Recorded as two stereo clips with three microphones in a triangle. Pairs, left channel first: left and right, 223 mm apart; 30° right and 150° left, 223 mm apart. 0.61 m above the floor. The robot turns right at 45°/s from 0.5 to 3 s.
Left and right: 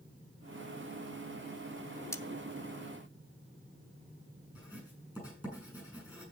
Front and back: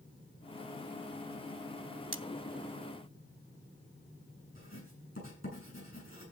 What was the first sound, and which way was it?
Cutlery clinking, 165° left.